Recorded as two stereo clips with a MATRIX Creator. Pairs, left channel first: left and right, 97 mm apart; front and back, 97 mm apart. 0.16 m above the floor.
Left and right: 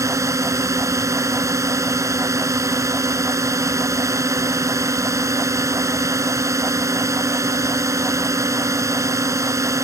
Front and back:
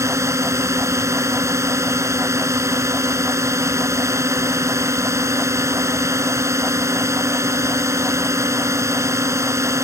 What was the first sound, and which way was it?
A drone, 135° right.